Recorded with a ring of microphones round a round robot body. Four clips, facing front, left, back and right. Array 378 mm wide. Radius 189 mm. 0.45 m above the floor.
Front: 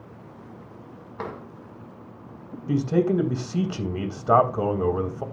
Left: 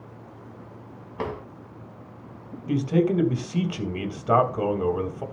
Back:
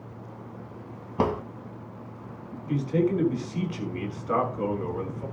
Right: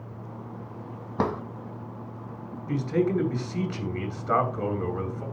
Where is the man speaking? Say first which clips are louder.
Left 3 dB, front 3 dB; 20° left, 3 m.